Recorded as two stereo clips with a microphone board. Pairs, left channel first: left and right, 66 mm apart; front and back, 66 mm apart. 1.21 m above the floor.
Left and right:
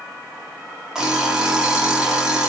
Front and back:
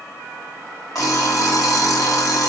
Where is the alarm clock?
10° right, 1.1 m.